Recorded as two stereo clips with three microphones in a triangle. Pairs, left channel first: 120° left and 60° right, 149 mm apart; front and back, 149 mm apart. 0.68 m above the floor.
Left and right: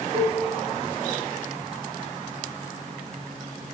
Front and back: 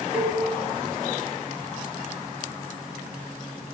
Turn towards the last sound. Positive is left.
turn(degrees=-100)